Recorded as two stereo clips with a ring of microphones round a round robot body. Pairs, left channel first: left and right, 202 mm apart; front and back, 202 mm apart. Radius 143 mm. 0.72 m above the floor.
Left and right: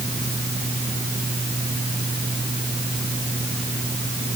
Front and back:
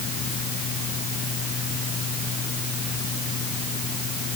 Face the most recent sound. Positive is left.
No sound to turn to.